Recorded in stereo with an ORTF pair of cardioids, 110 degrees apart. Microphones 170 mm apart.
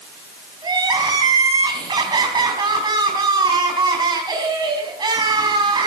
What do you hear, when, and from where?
0.6 s crying: 25° right, 3.5 m